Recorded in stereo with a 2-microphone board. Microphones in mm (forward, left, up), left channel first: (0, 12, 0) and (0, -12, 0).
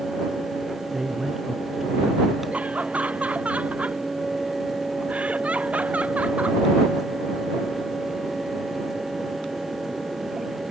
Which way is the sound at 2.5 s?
85° right.